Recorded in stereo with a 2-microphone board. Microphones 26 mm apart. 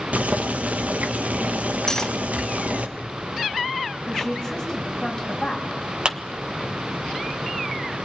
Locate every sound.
0.1 s boiling: 75° right (ahead or behind), 1.5 m
1.9 s cutlery clinking: 25° left (ahead or behind), 1.1 m
4.1 s a woman speaking: 15° left (ahead or behind), 8 m
6.0 s a clap: 35° right (ahead or behind), 1.2 m